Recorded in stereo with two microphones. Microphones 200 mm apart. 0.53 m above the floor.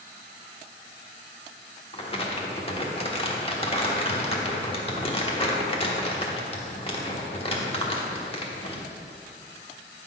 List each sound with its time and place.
1.9 s crumpling: 30° left (ahead or behind), 1.1 m